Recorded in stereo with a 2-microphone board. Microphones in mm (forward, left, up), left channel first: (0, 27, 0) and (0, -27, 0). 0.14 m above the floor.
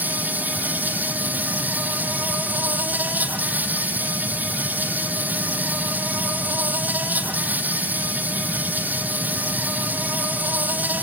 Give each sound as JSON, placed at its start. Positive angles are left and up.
{"t": 0.0, "sound": "an insect", "side_deg": -30, "distance_m": 1.3}